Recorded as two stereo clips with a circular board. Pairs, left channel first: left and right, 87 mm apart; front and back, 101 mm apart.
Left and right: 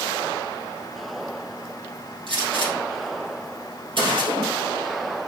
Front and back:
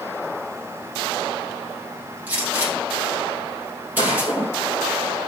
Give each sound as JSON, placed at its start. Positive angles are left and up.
{"t": 2.3, "sound": "a gunshot", "azimuth_deg": -110, "distance_m": 4.0}